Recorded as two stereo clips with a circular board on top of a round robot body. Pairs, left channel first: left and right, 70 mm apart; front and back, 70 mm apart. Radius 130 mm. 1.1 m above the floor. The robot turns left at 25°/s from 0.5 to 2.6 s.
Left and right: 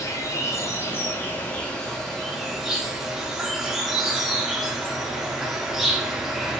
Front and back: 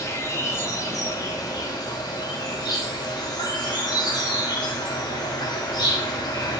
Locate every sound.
0.0 s an insect: 45° left, 0.7 m; by 6.6 s 5° right, 0.7 m